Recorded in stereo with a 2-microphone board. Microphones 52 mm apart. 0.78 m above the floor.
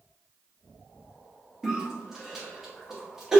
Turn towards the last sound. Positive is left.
turn(degrees=-5)  # may be behind; listen again after turning